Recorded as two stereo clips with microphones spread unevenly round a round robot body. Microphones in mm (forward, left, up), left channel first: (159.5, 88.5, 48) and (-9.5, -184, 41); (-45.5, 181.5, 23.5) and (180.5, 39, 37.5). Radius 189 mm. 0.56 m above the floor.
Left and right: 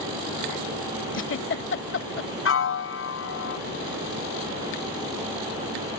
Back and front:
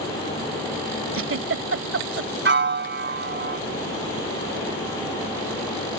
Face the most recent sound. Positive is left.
turn(degrees=15)